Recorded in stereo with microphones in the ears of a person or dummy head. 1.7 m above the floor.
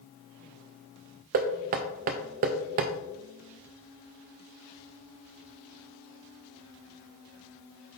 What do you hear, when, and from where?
1.3 s knocking: 35° right (ahead or behind), 0.5 m